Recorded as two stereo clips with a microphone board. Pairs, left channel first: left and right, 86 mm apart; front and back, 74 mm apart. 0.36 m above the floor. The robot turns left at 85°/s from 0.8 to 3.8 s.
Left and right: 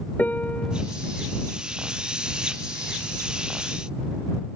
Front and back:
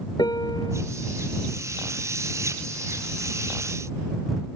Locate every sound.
0.2 s a piano: 20° left